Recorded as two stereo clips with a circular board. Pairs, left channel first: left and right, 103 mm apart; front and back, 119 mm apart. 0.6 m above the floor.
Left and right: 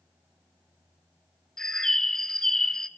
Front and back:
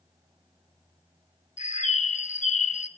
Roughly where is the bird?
Ahead.